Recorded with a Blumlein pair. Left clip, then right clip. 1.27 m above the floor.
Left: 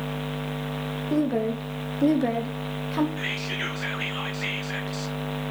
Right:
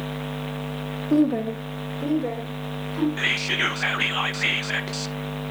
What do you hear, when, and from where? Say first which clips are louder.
1.1 s a woman speaking: right 4 dB; 5° right, 1.6 m; by 3.1 s 50° left, 2.5 m
3.2 s whispering: right 7 dB; 65° right, 0.6 m